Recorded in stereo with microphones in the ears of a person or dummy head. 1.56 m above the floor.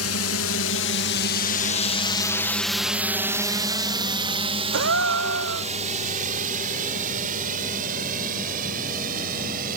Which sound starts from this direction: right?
A gasp, at 4.7 s.